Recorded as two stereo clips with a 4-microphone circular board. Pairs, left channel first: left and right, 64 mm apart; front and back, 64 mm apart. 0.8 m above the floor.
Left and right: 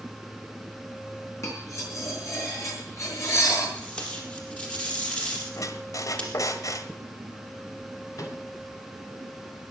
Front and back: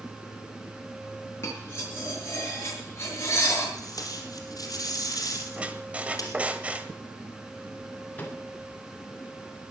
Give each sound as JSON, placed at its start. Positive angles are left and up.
{"t": 1.4, "sound": "cutlery clinking", "azimuth_deg": 50, "distance_m": 7.5}
{"t": 3.8, "sound": "tape being pulled", "azimuth_deg": 20, "distance_m": 4.0}
{"t": 5.6, "sound": "a squeak", "azimuth_deg": 110, "distance_m": 1.3}
{"t": 8.2, "sound": "a microwave", "azimuth_deg": 65, "distance_m": 3.0}